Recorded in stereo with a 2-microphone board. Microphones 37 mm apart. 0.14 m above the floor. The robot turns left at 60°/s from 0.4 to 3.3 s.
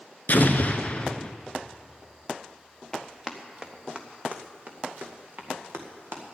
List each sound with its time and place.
0.3 s an explosion: 90° left, 0.8 m; by 1.3 s 35° left, 0.8 m
2.9 s running footsteps: 10° left (ahead or behind), 1.6 m; by 6.3 s 60° right (ahead or behind), 2.5 m